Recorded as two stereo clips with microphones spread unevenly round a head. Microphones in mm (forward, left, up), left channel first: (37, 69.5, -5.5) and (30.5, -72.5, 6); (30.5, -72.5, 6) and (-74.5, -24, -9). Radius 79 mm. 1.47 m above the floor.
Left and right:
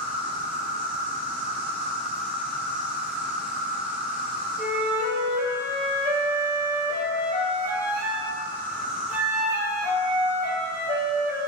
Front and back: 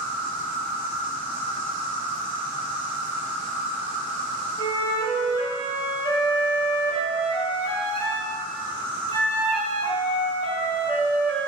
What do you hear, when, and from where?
0.0 s an insect: 175° right, 0.7 m
4.6 s a flute: 65° right, 1.0 m